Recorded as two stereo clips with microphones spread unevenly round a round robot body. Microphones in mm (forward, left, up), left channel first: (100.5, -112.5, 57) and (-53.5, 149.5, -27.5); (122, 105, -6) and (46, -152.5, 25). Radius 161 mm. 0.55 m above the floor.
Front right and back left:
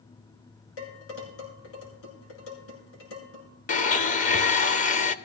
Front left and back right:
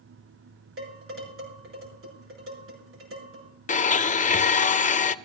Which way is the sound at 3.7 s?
5° left.